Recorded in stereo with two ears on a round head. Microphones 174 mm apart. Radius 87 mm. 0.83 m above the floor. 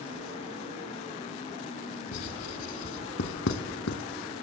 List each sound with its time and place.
2.1 s writing: 70° left (ahead or behind), 1.6 m